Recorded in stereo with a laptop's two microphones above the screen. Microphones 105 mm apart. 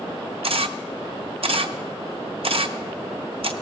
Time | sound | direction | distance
0.4 | a camera shutter | 60° right (ahead or behind) | 0.8 m